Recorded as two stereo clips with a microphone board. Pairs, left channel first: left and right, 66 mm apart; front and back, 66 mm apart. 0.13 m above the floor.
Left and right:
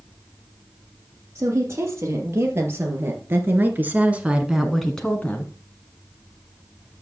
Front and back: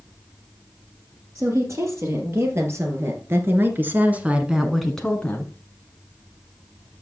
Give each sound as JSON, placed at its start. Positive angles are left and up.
{"t": 1.4, "sound": "a woman speaking", "azimuth_deg": -135, "distance_m": 4.0}